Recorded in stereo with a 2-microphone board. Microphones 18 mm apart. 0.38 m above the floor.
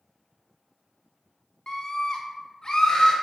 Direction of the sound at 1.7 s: 45° left (ahead or behind).